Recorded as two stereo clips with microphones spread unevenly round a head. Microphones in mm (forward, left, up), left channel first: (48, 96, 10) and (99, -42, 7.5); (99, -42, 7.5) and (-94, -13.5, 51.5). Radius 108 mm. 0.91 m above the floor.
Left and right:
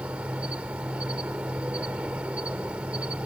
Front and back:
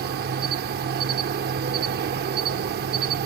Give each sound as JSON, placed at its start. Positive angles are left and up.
{"t": 0.0, "sound": "an insect", "azimuth_deg": -155}